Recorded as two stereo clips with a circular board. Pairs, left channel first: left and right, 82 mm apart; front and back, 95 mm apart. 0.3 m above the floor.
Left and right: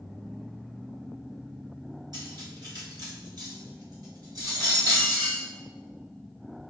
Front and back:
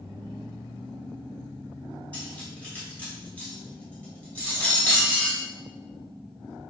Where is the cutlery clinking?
75° right, 1.0 m.